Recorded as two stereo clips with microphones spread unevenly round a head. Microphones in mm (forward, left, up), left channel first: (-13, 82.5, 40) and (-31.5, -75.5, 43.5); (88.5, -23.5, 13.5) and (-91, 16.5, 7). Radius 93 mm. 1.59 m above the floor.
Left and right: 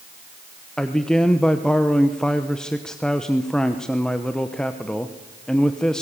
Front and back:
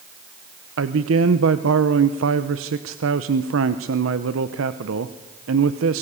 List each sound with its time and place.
0.8 s a man speaking: 170° left, 0.9 m